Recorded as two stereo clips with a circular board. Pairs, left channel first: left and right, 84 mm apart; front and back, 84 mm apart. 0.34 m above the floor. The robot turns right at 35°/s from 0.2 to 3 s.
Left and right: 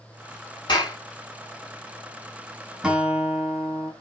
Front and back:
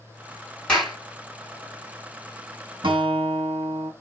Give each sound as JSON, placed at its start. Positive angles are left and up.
{"t": 0.7, "sound": "a clap", "azimuth_deg": 80, "distance_m": 1.7}
{"t": 2.8, "sound": "a guitar", "azimuth_deg": -170, "distance_m": 0.6}